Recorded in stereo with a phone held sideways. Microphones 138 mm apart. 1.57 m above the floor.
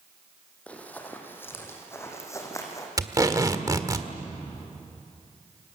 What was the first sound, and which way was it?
Running footsteps, 10° left (ahead or behind).